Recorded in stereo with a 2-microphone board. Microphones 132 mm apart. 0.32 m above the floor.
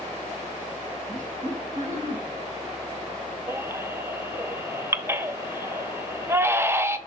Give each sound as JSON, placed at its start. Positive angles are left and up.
{"t": 1.1, "sound": "laughter", "side_deg": -70, "distance_m": 4.5}
{"t": 3.5, "sound": "a baby crying", "side_deg": -20, "distance_m": 0.6}